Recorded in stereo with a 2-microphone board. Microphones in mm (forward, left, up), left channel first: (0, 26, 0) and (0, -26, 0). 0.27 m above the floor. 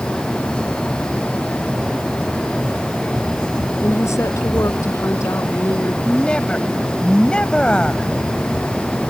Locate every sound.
3.8 s a woman speaking: 80° left
6.0 s a woman speaking: 20° left (ahead or behind)